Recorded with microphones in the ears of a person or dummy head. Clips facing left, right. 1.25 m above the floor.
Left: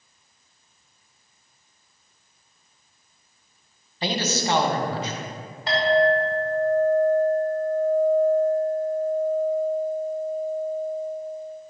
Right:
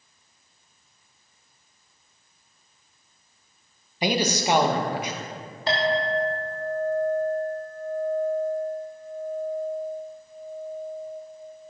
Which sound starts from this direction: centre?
A man speaking, at 4.0 s.